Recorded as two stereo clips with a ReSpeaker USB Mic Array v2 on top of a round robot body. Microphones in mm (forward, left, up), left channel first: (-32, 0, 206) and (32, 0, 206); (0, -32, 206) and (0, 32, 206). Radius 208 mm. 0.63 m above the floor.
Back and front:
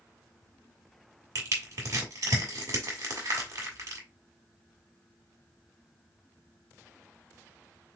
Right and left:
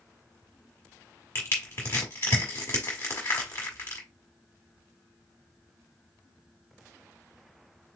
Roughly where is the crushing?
Ahead right.